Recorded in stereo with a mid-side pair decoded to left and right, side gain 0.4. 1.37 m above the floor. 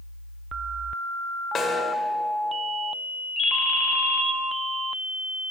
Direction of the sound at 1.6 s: 65° left.